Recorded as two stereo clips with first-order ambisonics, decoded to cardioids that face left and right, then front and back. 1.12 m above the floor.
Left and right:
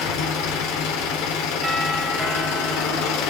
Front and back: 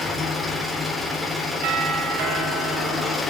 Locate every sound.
0.0 s an engine running: 90° left, 3.5 m
1.6 s a doorbell: 175° right, 3 m